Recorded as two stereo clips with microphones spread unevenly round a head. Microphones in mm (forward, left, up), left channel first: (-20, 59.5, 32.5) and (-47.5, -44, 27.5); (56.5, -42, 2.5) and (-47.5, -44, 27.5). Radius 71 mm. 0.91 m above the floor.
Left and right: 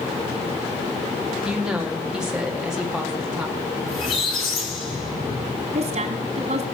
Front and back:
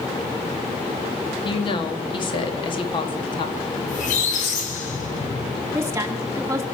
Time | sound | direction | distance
1.4 | a woman speaking | 20° right | 2 m
3.9 | a squeak | 20° left | 3 m
5.7 | a woman speaking | 110° right | 2 m